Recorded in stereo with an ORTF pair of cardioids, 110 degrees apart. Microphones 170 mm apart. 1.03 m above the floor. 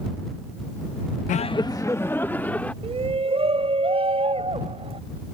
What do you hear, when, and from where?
1.3 s laughter: 50° left; by 2.7 s 10° left
2.8 s a shout: 35° right